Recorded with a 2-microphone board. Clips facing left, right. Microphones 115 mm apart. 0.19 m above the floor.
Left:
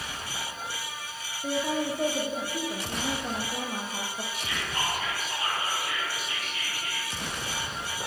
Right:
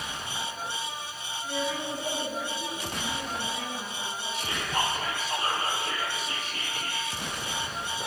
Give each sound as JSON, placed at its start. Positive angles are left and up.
{"t": 1.4, "sound": "a woman speaking", "side_deg": 80, "distance_m": 7.0}
{"t": 4.3, "sound": "whispering", "side_deg": -35, "distance_m": 5.0}